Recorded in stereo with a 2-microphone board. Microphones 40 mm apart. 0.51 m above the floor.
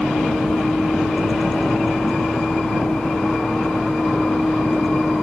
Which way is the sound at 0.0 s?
20° left (ahead or behind).